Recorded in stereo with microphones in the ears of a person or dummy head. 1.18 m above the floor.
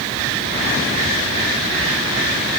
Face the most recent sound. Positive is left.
No sound to turn to.